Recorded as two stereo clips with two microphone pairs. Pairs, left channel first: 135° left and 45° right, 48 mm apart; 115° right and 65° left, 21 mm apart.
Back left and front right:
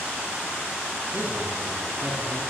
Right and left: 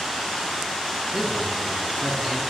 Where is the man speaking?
5° right, 2.5 m.